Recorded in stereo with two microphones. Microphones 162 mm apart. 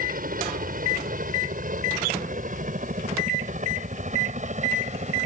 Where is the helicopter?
60° right (ahead or behind); by 5.3 s 45° right (ahead or behind).